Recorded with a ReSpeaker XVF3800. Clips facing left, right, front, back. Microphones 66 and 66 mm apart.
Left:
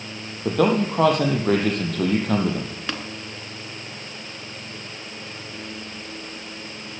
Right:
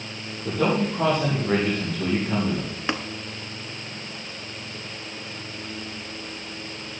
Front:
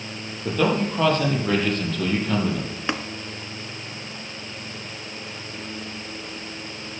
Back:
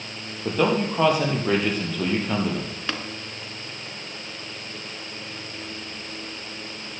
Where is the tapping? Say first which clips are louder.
Right 4 dB, front 4 dB; 50° right, 1.0 m.